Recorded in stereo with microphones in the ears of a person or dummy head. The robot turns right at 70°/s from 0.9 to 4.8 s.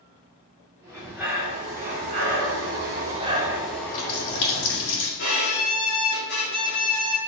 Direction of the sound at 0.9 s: 165° left.